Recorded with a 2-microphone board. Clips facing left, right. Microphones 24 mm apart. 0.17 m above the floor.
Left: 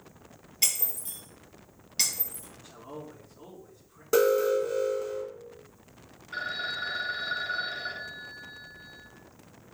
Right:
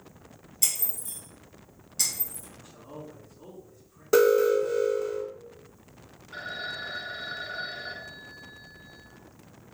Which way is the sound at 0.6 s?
45° left (ahead or behind).